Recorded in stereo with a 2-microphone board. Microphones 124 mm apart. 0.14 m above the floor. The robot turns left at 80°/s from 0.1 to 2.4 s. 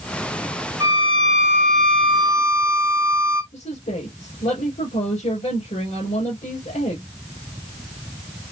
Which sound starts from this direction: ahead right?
A violin, at 0.8 s.